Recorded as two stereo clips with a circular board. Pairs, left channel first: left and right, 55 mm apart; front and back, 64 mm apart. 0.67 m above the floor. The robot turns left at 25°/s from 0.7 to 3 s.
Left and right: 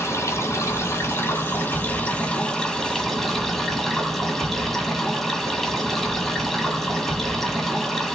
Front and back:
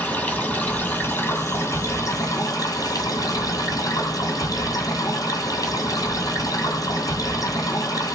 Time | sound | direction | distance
0.0 | running water | 60° left | 1.4 m